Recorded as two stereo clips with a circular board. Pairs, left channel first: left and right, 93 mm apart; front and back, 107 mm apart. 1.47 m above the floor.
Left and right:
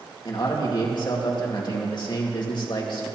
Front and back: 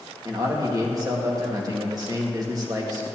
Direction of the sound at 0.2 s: 125° left.